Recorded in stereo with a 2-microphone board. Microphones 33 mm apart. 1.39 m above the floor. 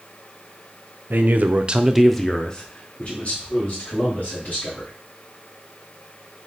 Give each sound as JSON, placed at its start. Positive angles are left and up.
{"t": 1.1, "sound": "a man speaking", "side_deg": -70, "distance_m": 0.7}